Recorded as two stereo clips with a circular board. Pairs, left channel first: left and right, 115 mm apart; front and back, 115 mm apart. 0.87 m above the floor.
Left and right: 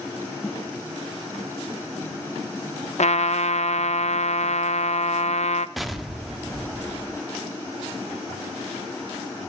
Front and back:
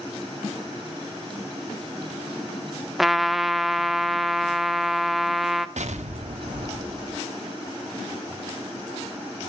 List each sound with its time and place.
3.0 s a trumpet: 90° left, 0.7 m
5.8 s an explosion: straight behind, 0.9 m